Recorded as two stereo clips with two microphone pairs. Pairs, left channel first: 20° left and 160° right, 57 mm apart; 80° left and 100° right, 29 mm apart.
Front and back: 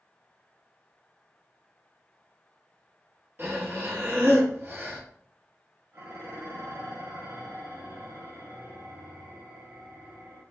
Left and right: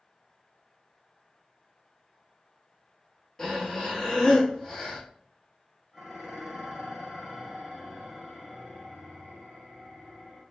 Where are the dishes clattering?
170° left, 1.3 m.